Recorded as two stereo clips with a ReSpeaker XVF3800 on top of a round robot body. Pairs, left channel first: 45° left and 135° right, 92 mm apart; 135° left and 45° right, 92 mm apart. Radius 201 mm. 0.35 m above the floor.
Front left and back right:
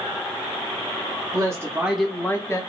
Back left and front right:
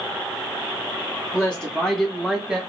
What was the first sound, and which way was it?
A woman speaking, 155° right.